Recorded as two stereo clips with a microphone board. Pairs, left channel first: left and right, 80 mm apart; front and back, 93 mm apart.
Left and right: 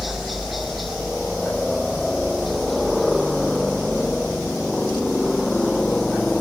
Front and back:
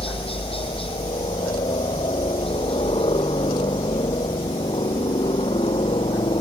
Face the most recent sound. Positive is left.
turn(degrees=5)